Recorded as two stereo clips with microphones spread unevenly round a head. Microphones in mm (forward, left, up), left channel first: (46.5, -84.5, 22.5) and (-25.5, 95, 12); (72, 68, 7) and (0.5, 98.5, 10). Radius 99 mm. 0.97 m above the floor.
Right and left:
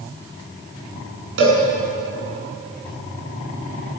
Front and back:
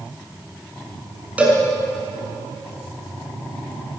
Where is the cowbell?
85° left, 7.5 m.